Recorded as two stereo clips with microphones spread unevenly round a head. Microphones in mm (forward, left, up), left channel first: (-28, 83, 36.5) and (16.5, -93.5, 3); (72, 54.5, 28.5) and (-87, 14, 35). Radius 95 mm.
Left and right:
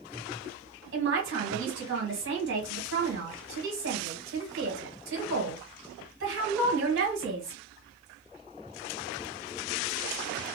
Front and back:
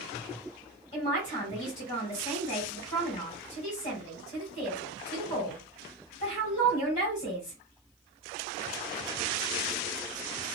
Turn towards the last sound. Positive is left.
turn(degrees=-45)